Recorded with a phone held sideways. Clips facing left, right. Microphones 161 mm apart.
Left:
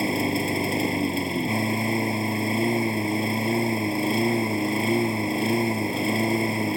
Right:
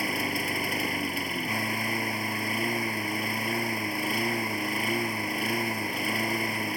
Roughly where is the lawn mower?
Left.